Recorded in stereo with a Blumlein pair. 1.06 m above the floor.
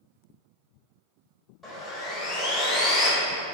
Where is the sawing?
20° left, 0.8 m.